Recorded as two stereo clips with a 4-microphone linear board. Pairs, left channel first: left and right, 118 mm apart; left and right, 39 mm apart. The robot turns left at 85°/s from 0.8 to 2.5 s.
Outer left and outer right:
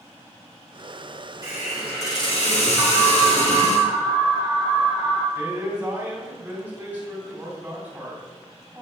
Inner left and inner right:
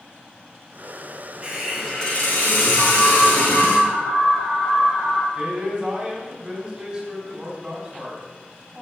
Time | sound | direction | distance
1.4 | a hiss | 155° right | 4 m
2.8 | an alarm | centre (ahead or behind) | 3 m
5.3 | a man speaking | 15° right (ahead or behind) | 3.5 m